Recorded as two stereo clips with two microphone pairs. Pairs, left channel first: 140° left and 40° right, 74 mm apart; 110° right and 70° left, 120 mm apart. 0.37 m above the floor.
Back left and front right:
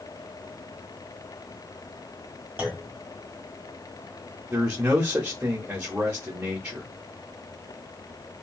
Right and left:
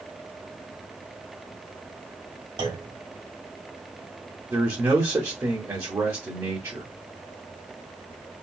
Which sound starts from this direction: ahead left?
A clunk, at 2.6 s.